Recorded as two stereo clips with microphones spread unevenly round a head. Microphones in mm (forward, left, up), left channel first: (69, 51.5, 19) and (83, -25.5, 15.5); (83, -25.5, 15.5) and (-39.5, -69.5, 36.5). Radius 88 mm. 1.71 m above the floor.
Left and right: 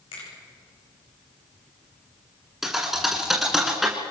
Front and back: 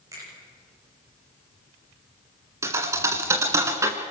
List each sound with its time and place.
0.1 s a finger snap: 130° left, 9.5 m
2.6 s a thud: 170° right, 1.8 m